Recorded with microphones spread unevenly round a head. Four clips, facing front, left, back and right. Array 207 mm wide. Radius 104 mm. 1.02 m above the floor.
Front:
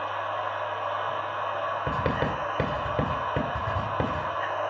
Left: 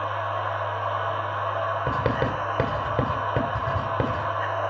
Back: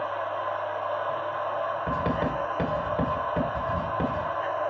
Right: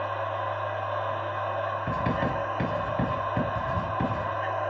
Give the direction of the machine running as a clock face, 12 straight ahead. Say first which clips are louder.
Left 2 dB, back 1 dB; 10 o'clock.